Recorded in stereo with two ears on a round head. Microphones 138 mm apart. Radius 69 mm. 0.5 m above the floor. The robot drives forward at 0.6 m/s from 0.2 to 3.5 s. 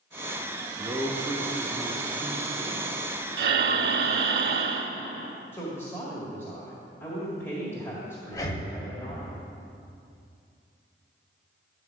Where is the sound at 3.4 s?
70° right (ahead or behind), 0.8 m.